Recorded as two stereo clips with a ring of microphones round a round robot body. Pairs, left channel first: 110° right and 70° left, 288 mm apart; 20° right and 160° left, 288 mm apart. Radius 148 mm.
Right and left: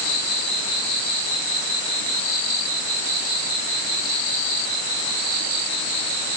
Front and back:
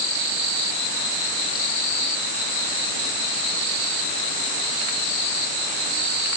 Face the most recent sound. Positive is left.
No sound to turn to.